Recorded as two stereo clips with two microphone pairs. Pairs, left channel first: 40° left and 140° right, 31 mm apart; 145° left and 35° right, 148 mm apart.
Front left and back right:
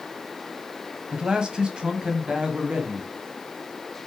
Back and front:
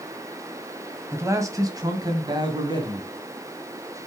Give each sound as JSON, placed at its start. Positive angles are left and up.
{"t": 1.1, "sound": "a man speaking", "azimuth_deg": -95, "distance_m": 1.4}